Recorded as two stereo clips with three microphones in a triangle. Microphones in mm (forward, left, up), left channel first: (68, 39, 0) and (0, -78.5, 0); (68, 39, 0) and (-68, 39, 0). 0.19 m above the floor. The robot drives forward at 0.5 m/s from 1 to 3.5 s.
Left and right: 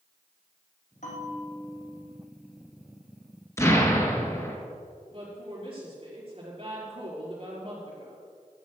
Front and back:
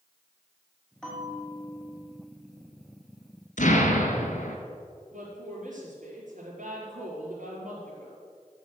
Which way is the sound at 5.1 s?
170° right.